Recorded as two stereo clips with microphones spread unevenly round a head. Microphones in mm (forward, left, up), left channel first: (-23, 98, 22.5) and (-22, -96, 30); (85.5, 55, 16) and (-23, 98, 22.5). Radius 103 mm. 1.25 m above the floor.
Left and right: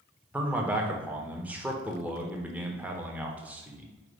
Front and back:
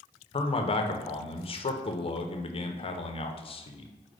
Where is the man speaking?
5° right, 0.6 m.